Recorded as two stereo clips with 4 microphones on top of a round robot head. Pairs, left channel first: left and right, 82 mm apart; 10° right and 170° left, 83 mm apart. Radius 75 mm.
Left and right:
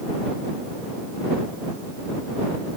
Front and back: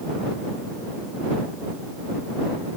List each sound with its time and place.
Only background noise.